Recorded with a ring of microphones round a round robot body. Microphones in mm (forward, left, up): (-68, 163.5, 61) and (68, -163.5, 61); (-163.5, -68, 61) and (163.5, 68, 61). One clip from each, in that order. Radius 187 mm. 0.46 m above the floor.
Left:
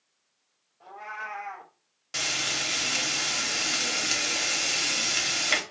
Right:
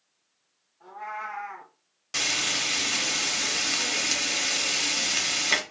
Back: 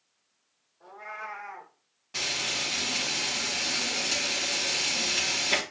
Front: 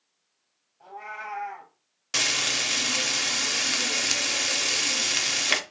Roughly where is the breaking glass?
No breaking glass in this recording.